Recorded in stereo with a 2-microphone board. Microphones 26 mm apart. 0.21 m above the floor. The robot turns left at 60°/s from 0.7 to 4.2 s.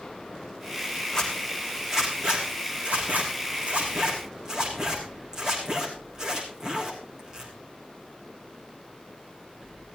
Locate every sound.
1.1 s a zipper: 25° left (ahead or behind), 4.5 m; by 7.5 s 20° right (ahead or behind), 4.5 m